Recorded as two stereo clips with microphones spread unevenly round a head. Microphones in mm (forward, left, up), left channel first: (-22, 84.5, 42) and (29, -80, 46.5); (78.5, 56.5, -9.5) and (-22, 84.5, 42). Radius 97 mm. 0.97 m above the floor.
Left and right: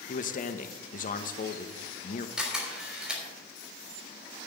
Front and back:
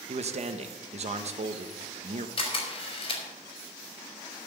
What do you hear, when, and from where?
0.1 s a man speaking: 135° left, 1.1 m
2.4 s a camera shutter: 10° left, 3.5 m